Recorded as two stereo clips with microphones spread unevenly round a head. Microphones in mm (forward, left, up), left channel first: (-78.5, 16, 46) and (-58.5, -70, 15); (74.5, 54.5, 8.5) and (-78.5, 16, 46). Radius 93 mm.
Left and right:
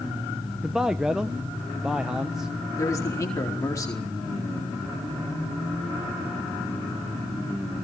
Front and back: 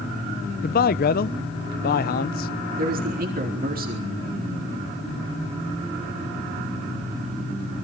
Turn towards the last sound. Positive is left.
turn(degrees=160)